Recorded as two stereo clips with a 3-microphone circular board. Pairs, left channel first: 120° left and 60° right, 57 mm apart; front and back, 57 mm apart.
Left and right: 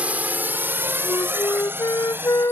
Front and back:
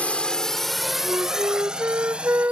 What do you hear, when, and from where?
0.0 s a drone: 35° right; by 2.5 s 110° right
1.0 s a flute: 130° left